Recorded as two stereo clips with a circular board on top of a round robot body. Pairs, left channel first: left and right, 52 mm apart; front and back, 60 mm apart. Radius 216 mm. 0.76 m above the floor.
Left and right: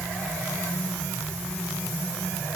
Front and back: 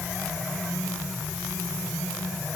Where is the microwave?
No microwave in this recording.